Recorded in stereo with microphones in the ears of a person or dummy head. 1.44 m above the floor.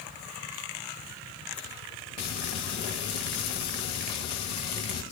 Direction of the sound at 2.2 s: 25° left (ahead or behind).